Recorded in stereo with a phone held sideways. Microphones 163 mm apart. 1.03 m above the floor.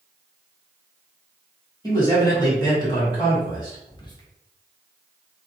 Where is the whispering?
25° left (ahead or behind), 0.7 m.